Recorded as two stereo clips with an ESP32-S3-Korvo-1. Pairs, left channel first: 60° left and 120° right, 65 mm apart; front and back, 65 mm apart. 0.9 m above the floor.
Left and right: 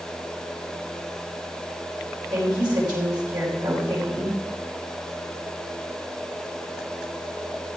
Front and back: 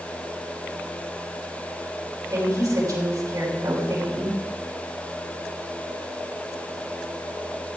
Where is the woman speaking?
140° right, 5 m.